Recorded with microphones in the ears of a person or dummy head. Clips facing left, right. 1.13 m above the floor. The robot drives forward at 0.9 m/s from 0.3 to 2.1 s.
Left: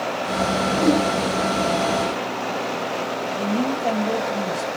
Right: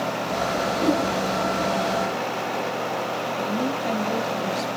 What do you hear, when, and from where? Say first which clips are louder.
0.7 s a whoosh: left 4 dB; 50° left (ahead or behind), 1.8 m; by 1.1 s 55° left (ahead or behind), 1.7 m
3.4 s a woman speaking: left 4 dB; 50° left (ahead or behind), 6.5 m